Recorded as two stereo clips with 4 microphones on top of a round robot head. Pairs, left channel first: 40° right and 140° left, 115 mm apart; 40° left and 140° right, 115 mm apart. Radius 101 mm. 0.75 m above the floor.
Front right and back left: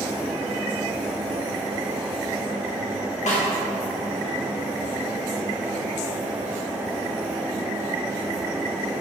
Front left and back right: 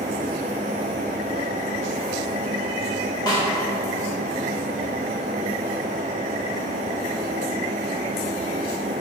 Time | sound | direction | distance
3.3 | a snare drum | 15° right | 2 m